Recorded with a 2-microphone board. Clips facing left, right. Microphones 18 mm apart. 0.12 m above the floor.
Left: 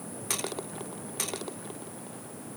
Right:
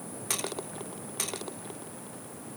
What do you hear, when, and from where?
Only background noise.